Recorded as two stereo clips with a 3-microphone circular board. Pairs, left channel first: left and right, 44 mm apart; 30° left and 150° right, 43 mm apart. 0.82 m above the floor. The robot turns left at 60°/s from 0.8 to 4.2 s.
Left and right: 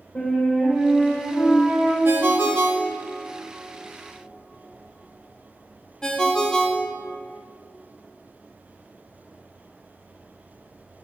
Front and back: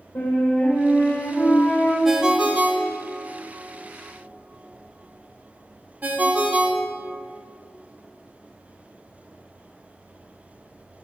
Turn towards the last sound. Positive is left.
turn(degrees=160)